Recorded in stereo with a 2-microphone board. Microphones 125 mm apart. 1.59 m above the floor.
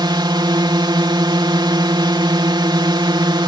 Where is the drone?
35° right (ahead or behind).